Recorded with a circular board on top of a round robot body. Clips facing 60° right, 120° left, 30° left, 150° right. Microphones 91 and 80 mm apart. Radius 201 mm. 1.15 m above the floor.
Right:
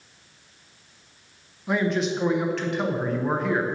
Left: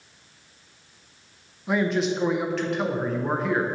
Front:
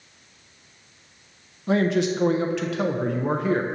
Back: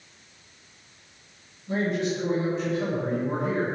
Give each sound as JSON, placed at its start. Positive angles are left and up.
{"t": 1.7, "sound": "a man speaking", "azimuth_deg": 30, "distance_m": 0.8}